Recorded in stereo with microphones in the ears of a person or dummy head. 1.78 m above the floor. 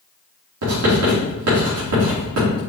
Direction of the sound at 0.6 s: 70° right (ahead or behind).